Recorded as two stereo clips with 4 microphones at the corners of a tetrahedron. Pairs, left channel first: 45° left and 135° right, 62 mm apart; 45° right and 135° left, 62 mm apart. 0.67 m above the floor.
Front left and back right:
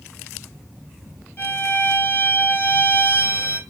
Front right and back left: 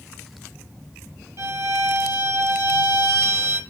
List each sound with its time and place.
1.4 s a violin: 100° left, 2.5 m